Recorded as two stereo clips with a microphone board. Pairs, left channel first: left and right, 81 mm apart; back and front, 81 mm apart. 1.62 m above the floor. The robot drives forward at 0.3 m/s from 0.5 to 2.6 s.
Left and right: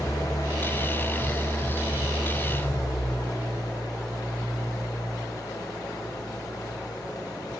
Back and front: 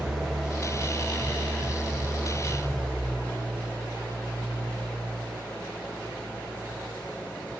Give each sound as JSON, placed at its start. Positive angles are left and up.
{"t": 0.0, "sound": "an engine running", "azimuth_deg": 95, "distance_m": 2.0}